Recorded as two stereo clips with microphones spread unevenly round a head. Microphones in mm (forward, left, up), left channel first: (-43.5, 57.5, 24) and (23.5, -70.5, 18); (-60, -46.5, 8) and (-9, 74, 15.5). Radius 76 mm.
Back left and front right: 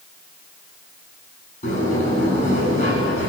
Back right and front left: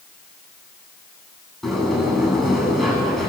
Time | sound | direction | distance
1.6 | a sliding door | 155° left | 9.5 m